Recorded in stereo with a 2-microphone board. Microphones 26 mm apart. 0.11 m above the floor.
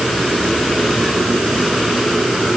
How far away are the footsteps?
No footsteps in this recording.